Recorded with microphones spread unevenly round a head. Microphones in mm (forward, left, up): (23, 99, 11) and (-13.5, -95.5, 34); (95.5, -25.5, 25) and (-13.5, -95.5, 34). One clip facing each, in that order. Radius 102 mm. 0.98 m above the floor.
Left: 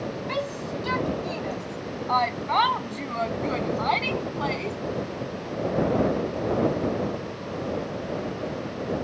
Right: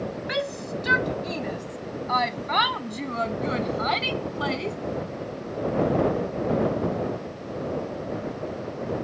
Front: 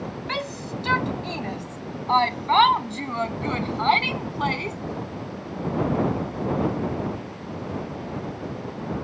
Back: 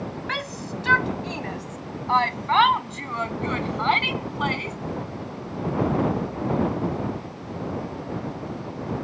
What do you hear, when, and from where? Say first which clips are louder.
0.3 s a shout: right 2 dB, front 1 dB; 30° right; by 4.8 s 20° right